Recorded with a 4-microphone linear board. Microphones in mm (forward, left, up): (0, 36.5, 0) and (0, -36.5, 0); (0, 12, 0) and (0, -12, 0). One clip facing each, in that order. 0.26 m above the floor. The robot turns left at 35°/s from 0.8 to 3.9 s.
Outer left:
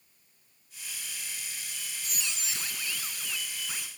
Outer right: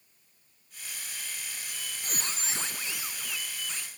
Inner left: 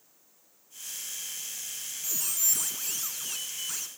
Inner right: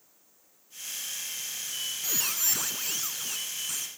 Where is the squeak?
115° right, 1.2 m; by 3.9 s 165° left, 1.2 m.